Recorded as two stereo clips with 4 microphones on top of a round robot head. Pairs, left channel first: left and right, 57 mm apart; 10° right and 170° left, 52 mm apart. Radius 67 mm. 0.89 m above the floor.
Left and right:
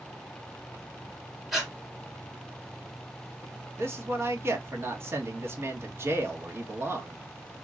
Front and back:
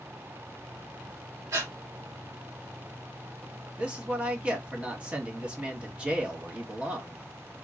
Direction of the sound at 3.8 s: 125° right.